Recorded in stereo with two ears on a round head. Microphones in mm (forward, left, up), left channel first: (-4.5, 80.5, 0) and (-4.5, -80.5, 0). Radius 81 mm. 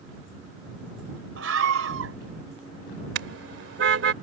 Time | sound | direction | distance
1.4 | a scream | 85° right | ?
3.1 | a car horn | 70° right (ahead or behind) | ?